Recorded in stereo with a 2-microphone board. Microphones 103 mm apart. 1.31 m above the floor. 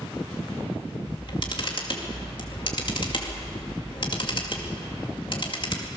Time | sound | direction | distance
1.1 | a camera shutter | 50° left (ahead or behind) | 2.5 m